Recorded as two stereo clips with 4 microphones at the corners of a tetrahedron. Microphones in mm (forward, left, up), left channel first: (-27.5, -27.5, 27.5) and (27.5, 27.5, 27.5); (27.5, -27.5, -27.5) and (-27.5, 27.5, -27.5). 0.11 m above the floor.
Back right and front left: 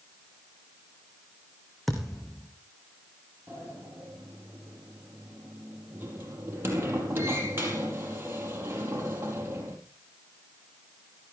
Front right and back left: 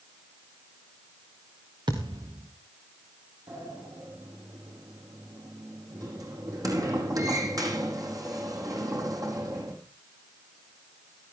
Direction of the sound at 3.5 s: 105° left.